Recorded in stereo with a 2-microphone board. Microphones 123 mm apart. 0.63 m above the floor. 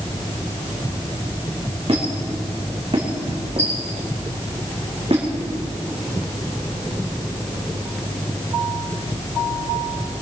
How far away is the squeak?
About 3.5 m.